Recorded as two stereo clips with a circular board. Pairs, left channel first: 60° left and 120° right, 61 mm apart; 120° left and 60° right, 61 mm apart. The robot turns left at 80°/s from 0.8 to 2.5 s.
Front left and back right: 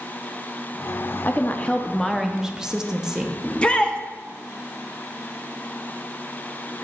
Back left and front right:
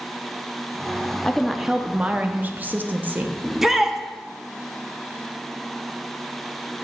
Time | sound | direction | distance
1.2 | a woman speaking | 50° left | 0.6 m
3.4 | a shout | 15° left | 0.6 m